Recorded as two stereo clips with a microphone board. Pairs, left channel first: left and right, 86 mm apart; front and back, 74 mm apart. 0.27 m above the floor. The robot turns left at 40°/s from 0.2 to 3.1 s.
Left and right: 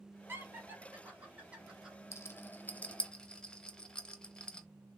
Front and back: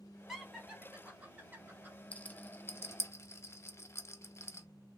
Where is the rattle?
55° left, 0.6 m; by 4.7 s 15° left, 0.6 m.